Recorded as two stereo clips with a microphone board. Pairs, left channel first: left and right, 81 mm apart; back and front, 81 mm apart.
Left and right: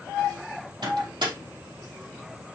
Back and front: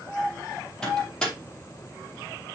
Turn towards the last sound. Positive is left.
turn(degrees=-100)